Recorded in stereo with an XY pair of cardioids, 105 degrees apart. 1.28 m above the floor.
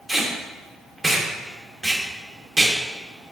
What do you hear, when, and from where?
0.1 s tape being pulled: 20° right, 1.6 m